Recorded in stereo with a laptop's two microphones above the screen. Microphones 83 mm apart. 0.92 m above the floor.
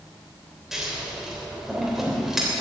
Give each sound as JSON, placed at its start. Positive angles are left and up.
{"t": 0.7, "sound": "scissors", "side_deg": -5, "distance_m": 3.0}